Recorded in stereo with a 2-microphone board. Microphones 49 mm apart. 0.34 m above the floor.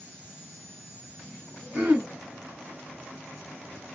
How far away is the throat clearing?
About 1.6 m.